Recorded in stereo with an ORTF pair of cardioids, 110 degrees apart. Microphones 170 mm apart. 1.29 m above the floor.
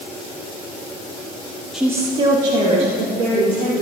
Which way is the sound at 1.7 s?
Straight ahead.